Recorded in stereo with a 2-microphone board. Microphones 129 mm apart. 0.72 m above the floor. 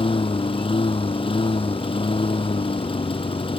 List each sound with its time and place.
0.0 s a lawn mower: 45° left (ahead or behind)